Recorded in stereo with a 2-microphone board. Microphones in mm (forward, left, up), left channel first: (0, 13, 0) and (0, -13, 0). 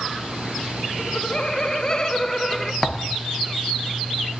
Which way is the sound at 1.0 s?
40° left (ahead or behind).